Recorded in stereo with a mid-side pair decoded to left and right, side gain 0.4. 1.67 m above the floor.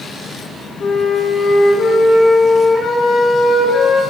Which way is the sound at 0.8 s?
50° left.